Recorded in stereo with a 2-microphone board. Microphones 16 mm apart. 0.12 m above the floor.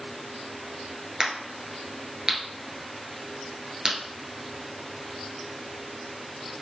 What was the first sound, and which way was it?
A crack, 45° right (ahead or behind).